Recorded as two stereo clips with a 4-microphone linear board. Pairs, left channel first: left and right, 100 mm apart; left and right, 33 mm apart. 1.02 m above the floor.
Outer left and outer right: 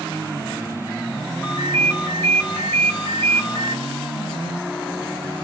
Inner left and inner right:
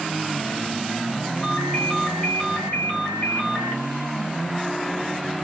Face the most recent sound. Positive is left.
turn(degrees=30)  # may be behind; listen again after turning